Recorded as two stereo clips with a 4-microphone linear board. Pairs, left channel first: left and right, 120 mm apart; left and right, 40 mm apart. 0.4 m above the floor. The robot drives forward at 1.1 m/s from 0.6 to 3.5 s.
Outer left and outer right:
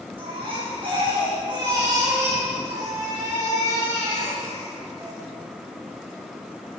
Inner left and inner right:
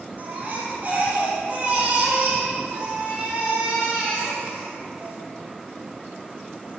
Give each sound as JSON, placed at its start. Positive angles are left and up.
{"t": 0.2, "sound": "a baby crying", "side_deg": -45, "distance_m": 4.5}